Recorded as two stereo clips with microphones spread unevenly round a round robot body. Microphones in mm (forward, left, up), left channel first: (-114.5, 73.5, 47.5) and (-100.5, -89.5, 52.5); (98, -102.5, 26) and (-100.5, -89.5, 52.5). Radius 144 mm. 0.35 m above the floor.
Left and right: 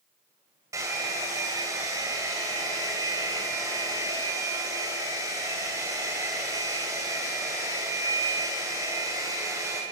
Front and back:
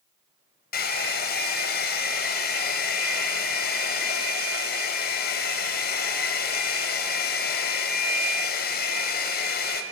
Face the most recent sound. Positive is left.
turn(degrees=-10)